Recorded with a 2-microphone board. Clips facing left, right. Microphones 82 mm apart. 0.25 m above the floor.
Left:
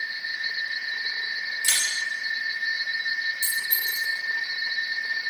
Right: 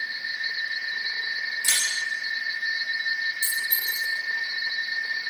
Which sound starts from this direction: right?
A clink, at 3.4 s.